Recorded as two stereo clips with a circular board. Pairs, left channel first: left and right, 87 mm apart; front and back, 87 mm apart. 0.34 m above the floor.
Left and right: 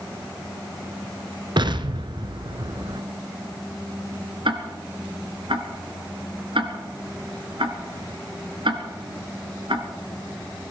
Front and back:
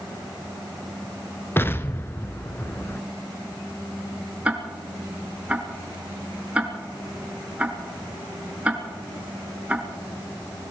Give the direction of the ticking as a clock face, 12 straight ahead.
3 o'clock.